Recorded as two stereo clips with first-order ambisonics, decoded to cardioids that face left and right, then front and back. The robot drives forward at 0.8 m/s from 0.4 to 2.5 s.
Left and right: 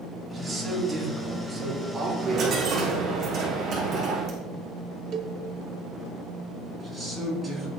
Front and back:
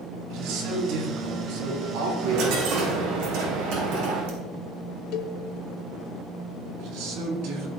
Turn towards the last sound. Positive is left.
turn(degrees=180)